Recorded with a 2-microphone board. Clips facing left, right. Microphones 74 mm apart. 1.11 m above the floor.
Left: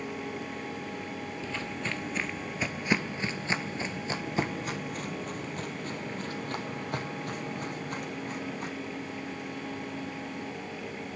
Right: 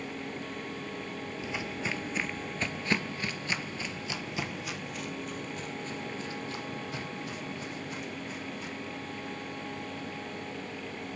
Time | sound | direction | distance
1.4 | footsteps | 15° right (ahead or behind) | 1.3 m